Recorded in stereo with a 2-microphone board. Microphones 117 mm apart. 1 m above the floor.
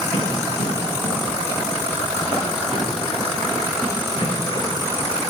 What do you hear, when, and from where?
0.1 s running footsteps: 55° left (ahead or behind), 5.5 m; by 5.2 s 45° left (ahead or behind), 12.5 m